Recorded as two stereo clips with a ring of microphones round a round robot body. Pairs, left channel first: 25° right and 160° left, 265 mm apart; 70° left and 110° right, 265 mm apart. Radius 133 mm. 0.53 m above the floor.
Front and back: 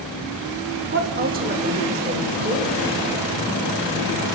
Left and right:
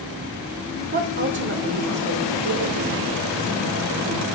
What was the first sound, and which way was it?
A woman speaking, 165° right.